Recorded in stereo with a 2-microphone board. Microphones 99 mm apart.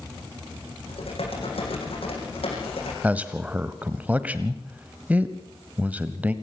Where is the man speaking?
15° right (ahead or behind), 1.0 m.